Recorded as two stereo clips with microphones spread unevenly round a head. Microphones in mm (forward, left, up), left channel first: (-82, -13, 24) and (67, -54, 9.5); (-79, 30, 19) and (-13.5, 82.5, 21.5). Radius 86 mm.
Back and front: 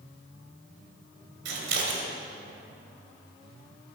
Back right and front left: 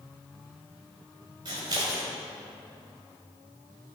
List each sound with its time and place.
1.4 s scissors: 15° right, 2.5 m